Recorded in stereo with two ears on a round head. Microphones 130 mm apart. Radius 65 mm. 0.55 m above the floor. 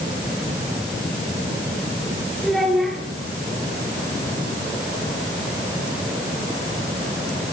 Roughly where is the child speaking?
Centre.